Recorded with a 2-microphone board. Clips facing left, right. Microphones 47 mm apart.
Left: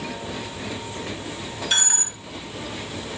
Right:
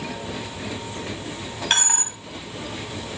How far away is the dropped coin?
About 1.3 m.